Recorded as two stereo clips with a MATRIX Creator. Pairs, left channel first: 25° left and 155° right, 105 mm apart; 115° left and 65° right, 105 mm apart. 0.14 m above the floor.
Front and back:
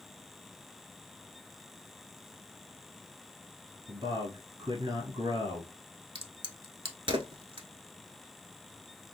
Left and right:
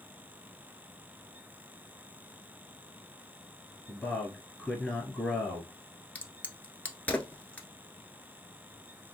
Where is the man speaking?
165° right, 1.5 m.